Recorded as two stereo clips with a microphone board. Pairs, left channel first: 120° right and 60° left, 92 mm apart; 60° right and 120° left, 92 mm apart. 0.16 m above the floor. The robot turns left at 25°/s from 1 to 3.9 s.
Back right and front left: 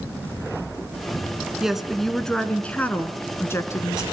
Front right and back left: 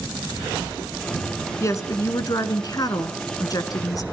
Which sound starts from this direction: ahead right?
A woman speaking, at 1.6 s.